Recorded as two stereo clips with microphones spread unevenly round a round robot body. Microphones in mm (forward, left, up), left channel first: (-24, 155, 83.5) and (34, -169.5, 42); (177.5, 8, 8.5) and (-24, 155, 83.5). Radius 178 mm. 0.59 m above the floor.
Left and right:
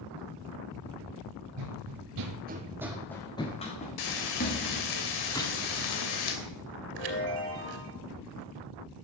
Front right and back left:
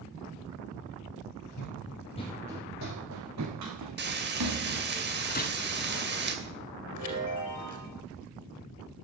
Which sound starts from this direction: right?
Running footsteps, at 1.6 s.